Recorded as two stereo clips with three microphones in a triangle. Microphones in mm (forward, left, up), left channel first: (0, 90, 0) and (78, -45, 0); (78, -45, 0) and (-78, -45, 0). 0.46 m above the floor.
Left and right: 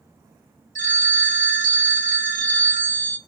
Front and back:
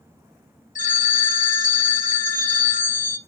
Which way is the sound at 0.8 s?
30° right.